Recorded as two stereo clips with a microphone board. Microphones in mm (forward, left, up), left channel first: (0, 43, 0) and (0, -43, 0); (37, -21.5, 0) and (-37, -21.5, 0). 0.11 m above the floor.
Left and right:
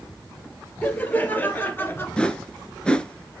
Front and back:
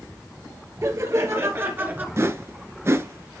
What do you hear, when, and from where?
0.8 s laughter: 155° left, 2.5 m; by 2.1 s 130° left, 2.0 m
2.2 s a whoosh: 160° left, 0.8 m